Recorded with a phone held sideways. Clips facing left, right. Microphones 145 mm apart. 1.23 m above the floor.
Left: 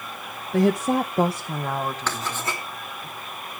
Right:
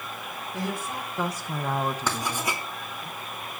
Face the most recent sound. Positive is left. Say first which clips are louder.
# even
turn(degrees=-10)  # may be behind; listen again after turning